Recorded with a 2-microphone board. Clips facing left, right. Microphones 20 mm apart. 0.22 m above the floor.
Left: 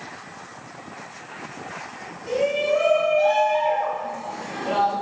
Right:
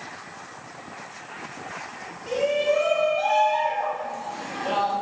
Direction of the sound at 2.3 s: 30° right (ahead or behind).